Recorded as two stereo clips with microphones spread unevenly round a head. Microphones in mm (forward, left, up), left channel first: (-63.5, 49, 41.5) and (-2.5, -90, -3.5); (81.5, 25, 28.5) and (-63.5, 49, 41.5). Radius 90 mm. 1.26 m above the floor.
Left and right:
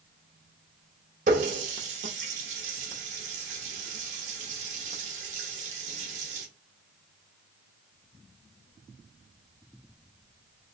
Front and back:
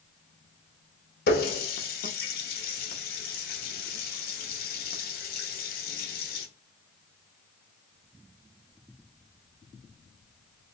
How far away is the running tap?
About 0.7 m.